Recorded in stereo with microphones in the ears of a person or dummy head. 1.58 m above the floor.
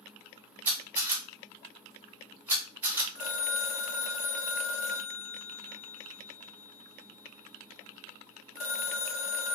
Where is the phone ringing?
45° left (ahead or behind), 0.5 m.